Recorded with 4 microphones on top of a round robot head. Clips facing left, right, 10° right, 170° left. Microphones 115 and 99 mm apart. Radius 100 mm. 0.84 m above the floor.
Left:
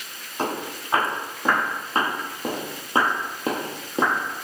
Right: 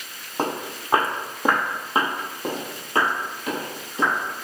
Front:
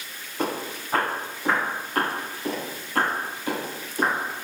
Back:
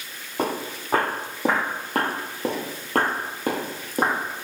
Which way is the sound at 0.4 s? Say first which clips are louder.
Right 1 dB, back 2 dB; 140° right.